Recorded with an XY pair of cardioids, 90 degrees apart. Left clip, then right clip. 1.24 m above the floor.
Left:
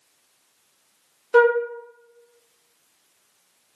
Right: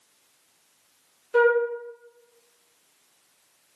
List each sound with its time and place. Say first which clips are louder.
1.3 s a flute: left 3 dB; 70° left, 0.6 m